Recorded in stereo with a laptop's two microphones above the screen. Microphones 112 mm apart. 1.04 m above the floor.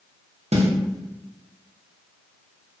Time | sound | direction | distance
0.5 | a snare drum | 75° right (ahead or behind) | 0.6 m